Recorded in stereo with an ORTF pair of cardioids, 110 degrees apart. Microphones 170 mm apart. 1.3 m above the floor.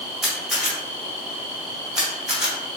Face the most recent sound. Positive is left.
turn(degrees=-5)